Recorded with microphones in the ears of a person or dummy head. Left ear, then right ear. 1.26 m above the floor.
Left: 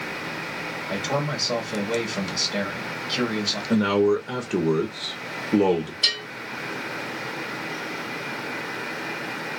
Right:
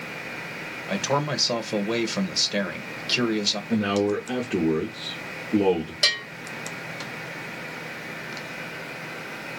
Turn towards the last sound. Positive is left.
turn(degrees=-50)  # may be behind; listen again after turning